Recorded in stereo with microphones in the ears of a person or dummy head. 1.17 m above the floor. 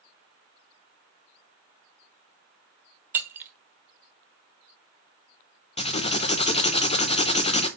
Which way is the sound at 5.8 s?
25° left (ahead or behind).